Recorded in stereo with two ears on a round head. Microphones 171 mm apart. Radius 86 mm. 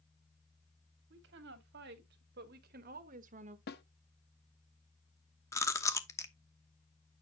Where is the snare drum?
55° left (ahead or behind), 0.9 m.